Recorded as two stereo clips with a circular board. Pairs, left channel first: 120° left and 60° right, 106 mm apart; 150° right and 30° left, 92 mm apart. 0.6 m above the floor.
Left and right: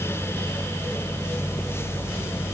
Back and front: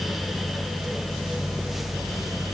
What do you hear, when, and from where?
Only background noise.